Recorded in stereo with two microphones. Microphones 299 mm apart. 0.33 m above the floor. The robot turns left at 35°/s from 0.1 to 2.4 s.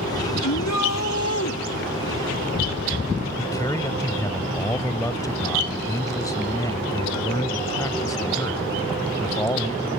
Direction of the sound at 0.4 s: 90° left.